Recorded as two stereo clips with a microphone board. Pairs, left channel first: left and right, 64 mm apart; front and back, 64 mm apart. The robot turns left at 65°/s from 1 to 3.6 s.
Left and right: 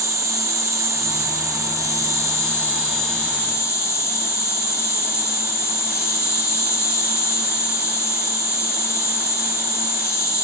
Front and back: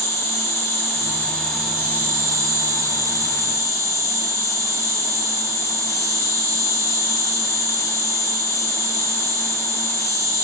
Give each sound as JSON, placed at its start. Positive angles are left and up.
{"t": 0.0, "sound": "an insect", "azimuth_deg": -50, "distance_m": 2.0}